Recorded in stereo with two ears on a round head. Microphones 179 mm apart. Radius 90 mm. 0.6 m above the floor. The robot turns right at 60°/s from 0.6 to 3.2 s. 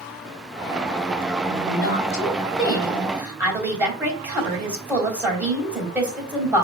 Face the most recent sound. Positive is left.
turn(degrees=-170)